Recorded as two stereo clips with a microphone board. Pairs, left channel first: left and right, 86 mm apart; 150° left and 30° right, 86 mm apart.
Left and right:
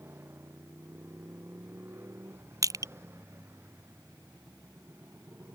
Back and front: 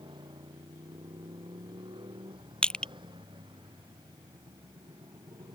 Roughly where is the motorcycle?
Ahead right.